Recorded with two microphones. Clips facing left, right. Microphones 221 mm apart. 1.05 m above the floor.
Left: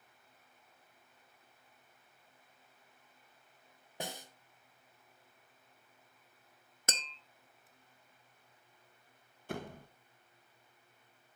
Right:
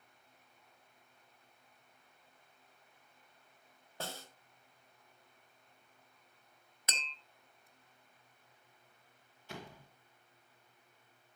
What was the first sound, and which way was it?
A snare drum, 15° left (ahead or behind).